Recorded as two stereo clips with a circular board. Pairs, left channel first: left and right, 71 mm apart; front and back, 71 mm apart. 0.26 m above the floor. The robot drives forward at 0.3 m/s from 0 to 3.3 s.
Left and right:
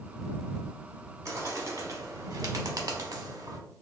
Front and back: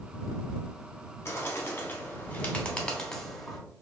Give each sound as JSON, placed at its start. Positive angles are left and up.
{"t": 1.2, "sound": "a bird", "azimuth_deg": -50, "distance_m": 1.0}